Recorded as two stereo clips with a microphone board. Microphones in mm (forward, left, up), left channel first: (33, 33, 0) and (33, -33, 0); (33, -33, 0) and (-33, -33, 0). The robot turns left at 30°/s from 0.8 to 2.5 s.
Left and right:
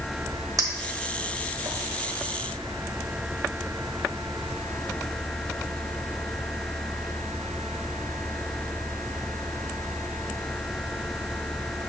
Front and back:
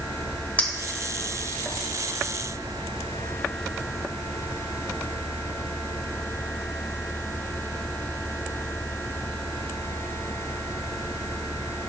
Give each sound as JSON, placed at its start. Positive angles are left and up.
{"t": 0.6, "sound": "a clink", "azimuth_deg": -65, "distance_m": 1.3}